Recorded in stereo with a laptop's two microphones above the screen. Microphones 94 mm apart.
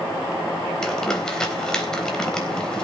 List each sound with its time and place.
0.8 s crumpling: 5° left (ahead or behind), 3.5 m